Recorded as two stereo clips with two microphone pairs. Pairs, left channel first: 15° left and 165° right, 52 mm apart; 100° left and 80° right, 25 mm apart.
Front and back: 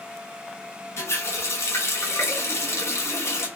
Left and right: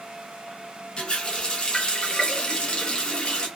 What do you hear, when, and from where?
1.0 s a running tap: 50° left, 1.1 m